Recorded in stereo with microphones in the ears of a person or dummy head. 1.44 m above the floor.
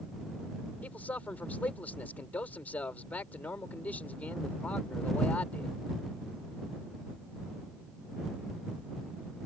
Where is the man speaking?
20° left (ahead or behind).